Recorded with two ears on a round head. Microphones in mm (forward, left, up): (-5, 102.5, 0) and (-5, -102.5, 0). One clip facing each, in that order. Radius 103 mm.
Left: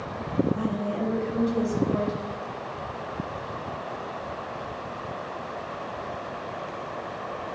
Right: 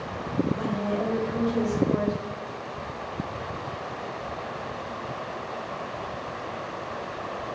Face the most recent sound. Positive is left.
turn(degrees=5)  # may be behind; listen again after turning